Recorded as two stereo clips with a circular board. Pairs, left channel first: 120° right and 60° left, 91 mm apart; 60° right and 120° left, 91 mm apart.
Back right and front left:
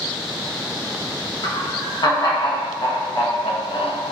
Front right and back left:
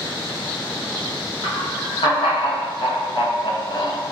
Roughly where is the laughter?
Right.